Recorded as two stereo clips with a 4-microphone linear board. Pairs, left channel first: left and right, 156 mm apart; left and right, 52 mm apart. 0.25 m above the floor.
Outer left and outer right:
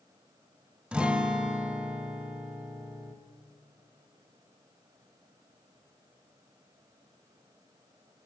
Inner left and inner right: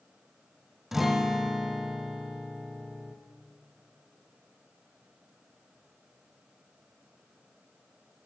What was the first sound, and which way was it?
A guitar, 5° right (ahead or behind).